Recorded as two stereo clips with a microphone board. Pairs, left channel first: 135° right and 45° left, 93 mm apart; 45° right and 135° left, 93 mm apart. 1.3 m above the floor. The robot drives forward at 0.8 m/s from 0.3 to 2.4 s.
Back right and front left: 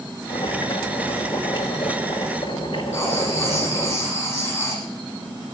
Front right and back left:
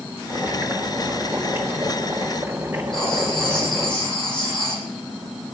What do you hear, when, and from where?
0.3 s boiling: 145° right, 3 m; by 3.9 s 155° right, 4.5 m
2.9 s writing: 75° right, 8 m